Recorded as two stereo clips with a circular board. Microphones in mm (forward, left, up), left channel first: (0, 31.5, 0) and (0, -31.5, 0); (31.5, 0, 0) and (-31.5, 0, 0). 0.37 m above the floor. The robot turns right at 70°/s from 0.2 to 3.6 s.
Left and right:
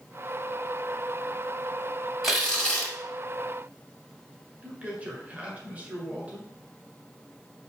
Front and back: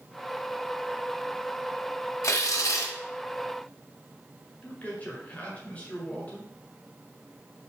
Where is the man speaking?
45° right, 1.7 m.